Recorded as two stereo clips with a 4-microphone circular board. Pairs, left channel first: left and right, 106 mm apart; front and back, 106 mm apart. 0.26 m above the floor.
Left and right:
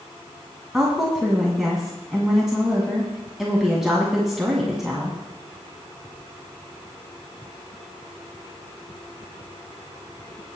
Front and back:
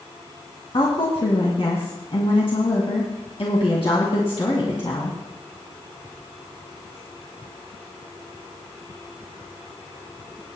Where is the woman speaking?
5° right, 2 m.